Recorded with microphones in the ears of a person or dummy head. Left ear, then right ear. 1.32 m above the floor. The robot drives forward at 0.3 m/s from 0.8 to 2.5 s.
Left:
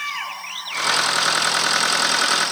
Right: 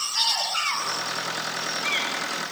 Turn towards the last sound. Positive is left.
No sound to turn to.